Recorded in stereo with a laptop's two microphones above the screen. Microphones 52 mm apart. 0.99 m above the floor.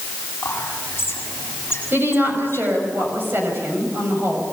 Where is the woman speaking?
45° right (ahead or behind), 6.5 m.